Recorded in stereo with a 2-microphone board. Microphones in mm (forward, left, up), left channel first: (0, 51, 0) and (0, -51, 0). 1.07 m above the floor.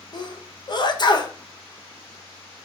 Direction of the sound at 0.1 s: 45° left (ahead or behind).